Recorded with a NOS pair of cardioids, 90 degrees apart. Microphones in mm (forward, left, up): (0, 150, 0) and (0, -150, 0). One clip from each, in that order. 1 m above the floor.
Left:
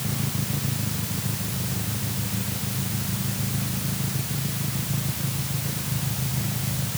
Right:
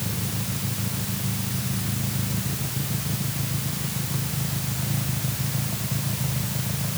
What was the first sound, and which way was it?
Only background noise.